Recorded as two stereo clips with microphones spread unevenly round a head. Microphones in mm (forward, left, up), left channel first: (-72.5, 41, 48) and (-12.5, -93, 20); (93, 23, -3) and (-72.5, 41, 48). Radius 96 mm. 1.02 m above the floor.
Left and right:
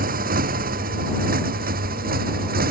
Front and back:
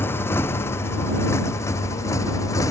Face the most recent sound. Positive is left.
turn(degrees=-80)